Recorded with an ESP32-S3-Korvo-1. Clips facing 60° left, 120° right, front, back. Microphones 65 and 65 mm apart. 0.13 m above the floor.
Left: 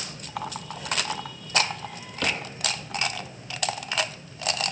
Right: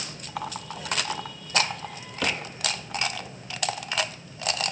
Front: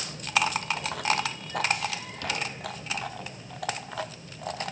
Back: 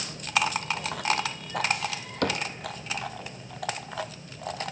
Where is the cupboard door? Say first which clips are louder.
Even, back 5 dB; 155° left, 3 m.